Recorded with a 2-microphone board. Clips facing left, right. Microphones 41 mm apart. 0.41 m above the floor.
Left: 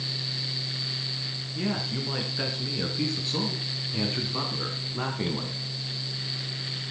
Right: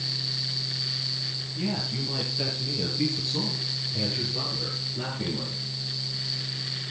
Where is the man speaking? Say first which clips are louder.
Left 1 dB; 45° left (ahead or behind), 4.5 m; by 5.7 s 70° left (ahead or behind), 3 m.